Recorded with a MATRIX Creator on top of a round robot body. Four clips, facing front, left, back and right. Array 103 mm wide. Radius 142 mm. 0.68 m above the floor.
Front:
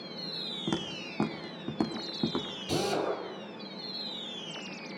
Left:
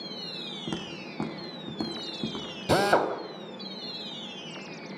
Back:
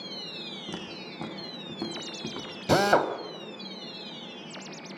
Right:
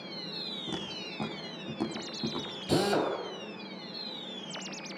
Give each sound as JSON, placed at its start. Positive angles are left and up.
{"t": 0.7, "sound": "footsteps", "azimuth_deg": 25, "distance_m": 4.0}
{"t": 2.7, "sound": "a drill", "azimuth_deg": 140, "distance_m": 3.0}